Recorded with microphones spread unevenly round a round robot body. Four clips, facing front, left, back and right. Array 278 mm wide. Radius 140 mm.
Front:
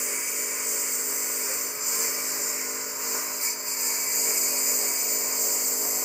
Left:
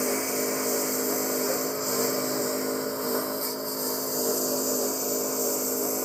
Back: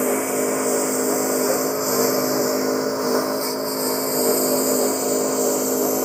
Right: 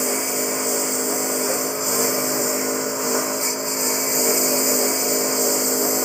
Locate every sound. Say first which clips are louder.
0.0 s a lawn mower: right 3 dB, back 18 dB; 175° right; by 6.1 s 155° right